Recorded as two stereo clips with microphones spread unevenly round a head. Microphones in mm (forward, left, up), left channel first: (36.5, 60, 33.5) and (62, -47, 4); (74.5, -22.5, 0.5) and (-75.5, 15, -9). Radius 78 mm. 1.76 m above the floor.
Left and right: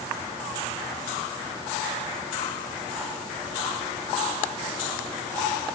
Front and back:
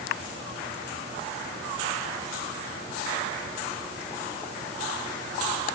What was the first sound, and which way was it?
Only background noise.